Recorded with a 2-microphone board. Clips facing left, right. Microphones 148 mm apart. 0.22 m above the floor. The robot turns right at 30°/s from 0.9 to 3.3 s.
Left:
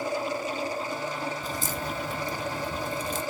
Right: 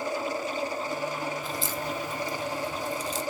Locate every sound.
1.4 s a crack: 40° left (ahead or behind), 1.1 m; by 3.2 s 60° left (ahead or behind), 1.1 m